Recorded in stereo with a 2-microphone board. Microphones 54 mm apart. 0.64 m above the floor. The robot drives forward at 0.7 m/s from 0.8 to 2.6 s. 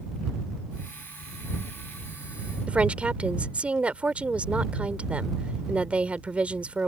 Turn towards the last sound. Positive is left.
turn(degrees=-25)  # may be behind; listen again after turning